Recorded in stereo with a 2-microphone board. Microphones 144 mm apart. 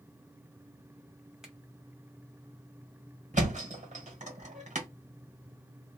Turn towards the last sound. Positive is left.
turn(degrees=-55)  # may be behind; listen again after turning